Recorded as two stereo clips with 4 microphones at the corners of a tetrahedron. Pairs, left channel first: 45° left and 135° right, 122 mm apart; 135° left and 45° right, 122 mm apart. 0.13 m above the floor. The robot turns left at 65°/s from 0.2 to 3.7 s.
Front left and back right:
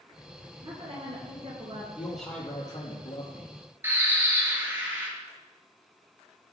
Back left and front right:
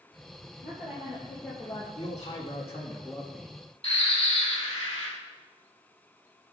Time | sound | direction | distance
0.6 | a woman speaking | 95° right | 2.5 m
1.9 | a man speaking | 150° left | 4 m
3.8 | a bird | 155° left | 3 m